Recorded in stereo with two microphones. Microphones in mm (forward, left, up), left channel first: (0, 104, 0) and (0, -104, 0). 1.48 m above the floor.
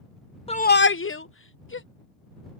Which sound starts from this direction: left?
A shout, at 0.5 s.